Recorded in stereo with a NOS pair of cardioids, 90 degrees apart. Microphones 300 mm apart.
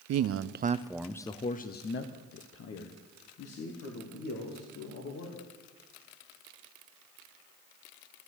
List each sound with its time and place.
0.1 s a man speaking: 60° right, 0.7 m; by 5.4 s 60° left, 3 m